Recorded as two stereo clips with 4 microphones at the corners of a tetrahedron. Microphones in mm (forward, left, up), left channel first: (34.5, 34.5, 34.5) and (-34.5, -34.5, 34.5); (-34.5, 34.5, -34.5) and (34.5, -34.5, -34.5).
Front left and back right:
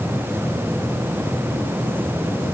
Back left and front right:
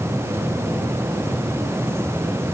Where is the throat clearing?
I don't hear throat clearing.